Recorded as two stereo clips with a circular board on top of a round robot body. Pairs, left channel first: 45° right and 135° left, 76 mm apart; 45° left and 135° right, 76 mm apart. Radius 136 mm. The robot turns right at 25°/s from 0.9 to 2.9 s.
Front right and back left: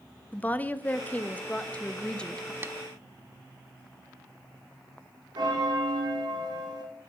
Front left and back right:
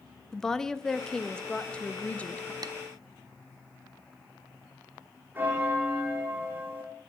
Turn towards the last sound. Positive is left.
turn(degrees=160)